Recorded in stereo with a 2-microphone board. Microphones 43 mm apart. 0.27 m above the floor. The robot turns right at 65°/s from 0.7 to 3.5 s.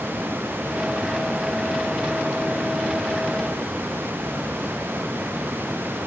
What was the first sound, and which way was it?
Only background noise.